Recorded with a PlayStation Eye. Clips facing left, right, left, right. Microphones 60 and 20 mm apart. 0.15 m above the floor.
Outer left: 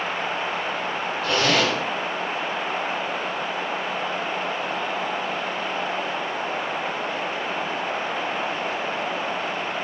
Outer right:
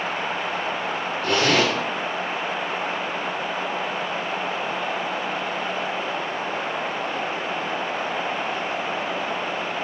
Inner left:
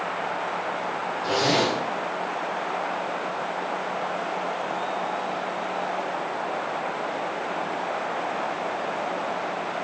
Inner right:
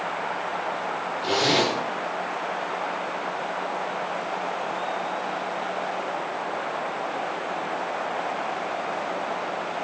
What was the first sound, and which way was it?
A zipper, 75° right (ahead or behind).